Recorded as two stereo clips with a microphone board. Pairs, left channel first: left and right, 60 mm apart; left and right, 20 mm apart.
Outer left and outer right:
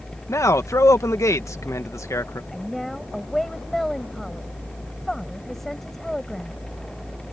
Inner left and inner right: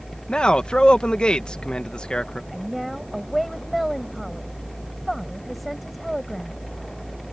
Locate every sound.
0.3 s a man speaking: 55° left (ahead or behind)
2.5 s a woman speaking: 5° left (ahead or behind)